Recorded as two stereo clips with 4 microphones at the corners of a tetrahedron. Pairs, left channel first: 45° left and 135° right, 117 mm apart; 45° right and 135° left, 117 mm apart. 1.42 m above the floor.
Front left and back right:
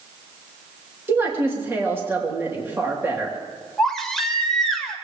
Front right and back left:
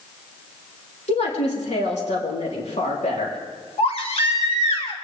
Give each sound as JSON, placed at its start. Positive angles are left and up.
{"t": 1.1, "sound": "a woman speaking", "azimuth_deg": -65, "distance_m": 3.5}
{"t": 3.8, "sound": "a baby crying", "azimuth_deg": -40, "distance_m": 1.7}